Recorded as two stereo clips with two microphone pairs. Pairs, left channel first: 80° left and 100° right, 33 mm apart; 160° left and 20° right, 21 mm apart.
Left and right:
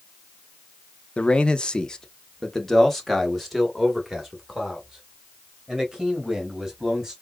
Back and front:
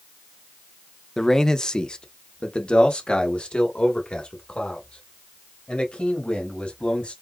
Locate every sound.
1.2 s a man speaking: 100° left, 0.7 m; by 7.1 s 175° left, 3 m